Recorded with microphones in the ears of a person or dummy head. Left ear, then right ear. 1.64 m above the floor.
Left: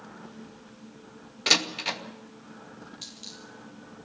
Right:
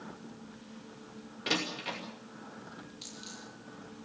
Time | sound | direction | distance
1.5 | a door slam | 35° left (ahead or behind) | 2 m
3.0 | a dropped coin | 10° left (ahead or behind) | 8.5 m